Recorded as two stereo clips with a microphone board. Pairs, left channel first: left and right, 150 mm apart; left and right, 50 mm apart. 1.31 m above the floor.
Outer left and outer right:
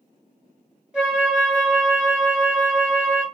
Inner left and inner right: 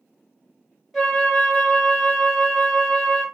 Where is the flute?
5° right (ahead or behind), 1.1 m.